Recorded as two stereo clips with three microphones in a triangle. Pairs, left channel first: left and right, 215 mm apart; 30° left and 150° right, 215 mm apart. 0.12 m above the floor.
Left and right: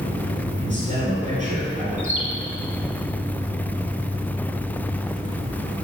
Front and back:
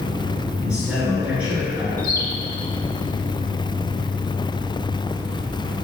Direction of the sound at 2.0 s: 90° right.